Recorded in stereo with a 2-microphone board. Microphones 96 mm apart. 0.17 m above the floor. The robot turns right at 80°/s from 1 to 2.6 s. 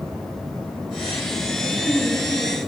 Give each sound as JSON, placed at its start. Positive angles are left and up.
{"t": 1.6, "sound": "a woman speaking", "azimuth_deg": 110, "distance_m": 3.0}